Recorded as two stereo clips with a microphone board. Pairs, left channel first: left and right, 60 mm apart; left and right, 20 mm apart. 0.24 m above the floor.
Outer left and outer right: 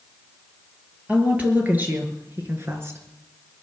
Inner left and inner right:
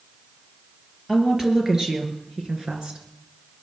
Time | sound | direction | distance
1.1 | a woman speaking | 25° right (ahead or behind) | 4.5 m